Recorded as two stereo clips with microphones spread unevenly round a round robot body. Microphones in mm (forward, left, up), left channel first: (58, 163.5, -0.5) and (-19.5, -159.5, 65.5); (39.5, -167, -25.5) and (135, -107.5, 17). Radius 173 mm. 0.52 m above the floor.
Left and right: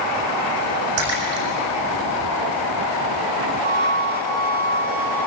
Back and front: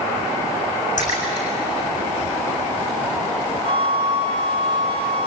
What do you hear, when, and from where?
1.0 s a splash: 155° right, 7.5 m
3.6 s a flute: 170° right, 3 m